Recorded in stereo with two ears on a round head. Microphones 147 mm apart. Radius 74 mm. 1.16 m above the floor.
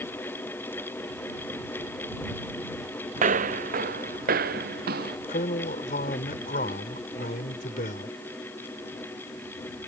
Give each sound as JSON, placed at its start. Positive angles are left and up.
{"t": 3.2, "sound": "footsteps", "side_deg": -50}
{"t": 5.3, "sound": "a man speaking", "side_deg": 50}